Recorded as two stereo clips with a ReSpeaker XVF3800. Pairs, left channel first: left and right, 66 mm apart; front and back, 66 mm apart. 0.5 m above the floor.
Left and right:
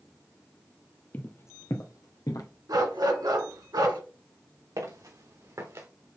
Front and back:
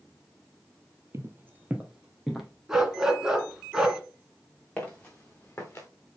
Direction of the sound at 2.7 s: 100° right.